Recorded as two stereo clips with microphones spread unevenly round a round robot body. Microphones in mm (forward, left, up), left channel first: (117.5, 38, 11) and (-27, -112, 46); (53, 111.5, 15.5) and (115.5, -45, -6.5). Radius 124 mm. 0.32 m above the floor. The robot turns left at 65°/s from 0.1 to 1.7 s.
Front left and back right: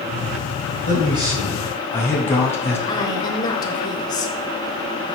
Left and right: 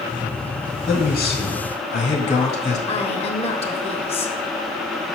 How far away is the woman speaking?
About 1.2 m.